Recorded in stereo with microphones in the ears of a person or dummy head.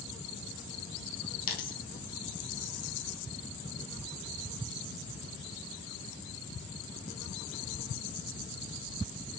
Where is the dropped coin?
55° left (ahead or behind), 3.5 m.